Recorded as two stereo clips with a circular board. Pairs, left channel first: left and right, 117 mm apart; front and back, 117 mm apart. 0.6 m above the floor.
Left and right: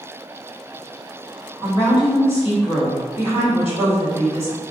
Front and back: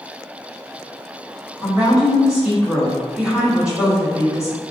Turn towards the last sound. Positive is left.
turn(degrees=100)